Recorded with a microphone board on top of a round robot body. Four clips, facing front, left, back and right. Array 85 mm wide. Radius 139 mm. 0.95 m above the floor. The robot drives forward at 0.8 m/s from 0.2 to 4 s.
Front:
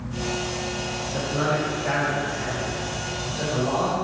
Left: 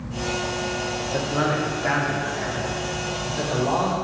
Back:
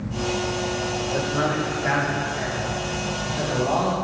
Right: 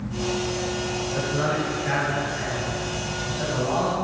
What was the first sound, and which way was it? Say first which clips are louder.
A man speaking: left 2 dB, even; 100° left.